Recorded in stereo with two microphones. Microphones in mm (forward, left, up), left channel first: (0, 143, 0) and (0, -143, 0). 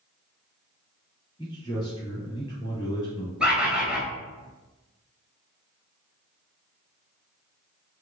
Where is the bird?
5° right (ahead or behind), 0.8 m.